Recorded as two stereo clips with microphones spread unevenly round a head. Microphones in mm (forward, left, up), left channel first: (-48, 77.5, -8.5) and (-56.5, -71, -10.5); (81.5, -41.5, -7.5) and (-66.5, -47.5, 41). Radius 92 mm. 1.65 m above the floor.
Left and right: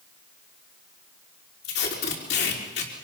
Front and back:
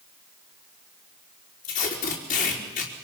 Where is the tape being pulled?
55° left, 4 m.